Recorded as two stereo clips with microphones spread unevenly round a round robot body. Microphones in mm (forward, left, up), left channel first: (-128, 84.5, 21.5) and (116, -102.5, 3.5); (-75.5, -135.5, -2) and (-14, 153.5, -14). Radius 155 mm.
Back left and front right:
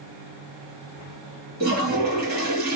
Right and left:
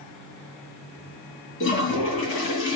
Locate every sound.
1.6 s a toilet flushing: 75° right, 1.4 m